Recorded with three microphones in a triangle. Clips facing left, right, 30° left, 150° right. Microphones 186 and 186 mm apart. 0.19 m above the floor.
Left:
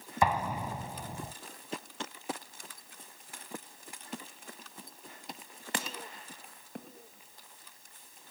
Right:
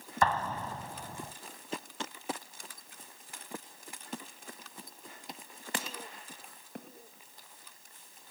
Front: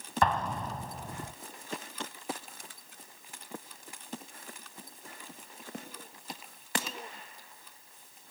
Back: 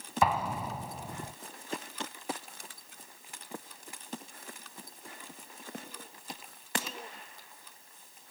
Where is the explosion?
140° left, 0.7 m.